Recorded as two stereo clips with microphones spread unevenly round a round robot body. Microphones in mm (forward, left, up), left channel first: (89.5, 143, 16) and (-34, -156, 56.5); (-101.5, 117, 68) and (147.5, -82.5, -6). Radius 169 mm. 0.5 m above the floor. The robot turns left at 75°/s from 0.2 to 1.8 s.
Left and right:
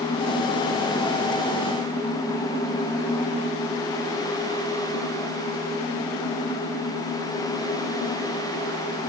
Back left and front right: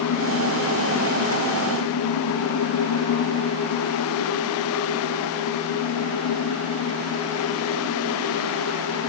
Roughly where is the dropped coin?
I don't hear a dropped coin.